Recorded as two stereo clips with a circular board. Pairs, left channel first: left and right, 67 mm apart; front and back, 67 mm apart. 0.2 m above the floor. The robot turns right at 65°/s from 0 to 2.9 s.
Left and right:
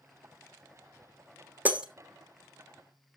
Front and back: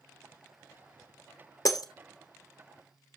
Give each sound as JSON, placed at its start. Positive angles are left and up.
{"t": 1.6, "sound": "breaking glass", "azimuth_deg": -25, "distance_m": 1.1}